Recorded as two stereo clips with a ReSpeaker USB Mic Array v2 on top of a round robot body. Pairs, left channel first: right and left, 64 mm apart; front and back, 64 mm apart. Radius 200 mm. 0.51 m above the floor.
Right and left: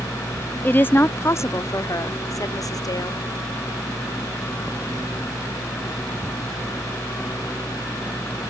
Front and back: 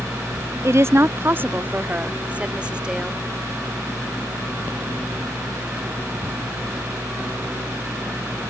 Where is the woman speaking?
150° right; by 3.2 s 100° right.